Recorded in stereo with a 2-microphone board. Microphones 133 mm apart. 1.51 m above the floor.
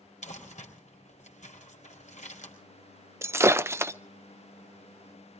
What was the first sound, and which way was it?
Crumpling, 65° left (ahead or behind).